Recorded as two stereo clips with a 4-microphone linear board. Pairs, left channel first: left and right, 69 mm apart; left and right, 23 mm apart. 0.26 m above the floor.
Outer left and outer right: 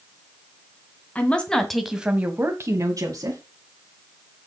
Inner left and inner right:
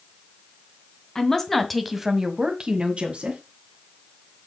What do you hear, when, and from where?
1.1 s a woman speaking: 20° left (ahead or behind), 2 m; by 3.4 s 60° right (ahead or behind), 2.5 m